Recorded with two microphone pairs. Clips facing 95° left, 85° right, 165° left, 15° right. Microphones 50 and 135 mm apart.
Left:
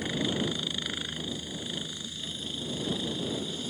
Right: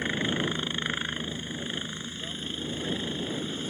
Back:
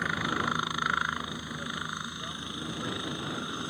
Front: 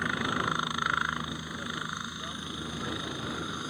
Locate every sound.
0.0 s a helicopter: 105° right; by 3.7 s 110° right